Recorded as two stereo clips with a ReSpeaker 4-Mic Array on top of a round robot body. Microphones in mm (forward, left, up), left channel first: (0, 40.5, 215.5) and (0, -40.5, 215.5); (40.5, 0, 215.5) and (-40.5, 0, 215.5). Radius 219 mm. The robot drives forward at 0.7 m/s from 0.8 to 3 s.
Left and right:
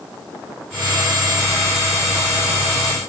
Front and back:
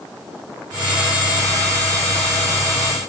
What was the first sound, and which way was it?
Only background noise.